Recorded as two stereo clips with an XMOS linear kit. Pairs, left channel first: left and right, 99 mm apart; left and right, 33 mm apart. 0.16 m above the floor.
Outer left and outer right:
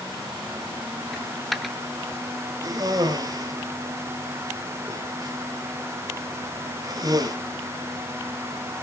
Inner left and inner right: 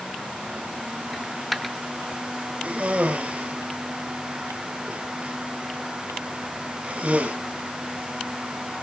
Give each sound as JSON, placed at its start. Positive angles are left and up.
{"t": 1.1, "sound": "a dropped coin", "side_deg": 0, "distance_m": 0.8}
{"t": 2.6, "sound": "a cough", "side_deg": -40, "distance_m": 3.5}